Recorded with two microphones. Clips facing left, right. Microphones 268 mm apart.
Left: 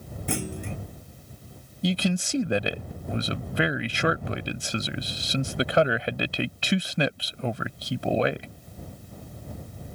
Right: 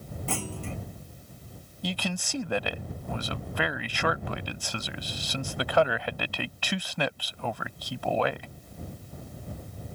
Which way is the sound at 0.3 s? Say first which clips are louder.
Left 4 dB; 15° left (ahead or behind).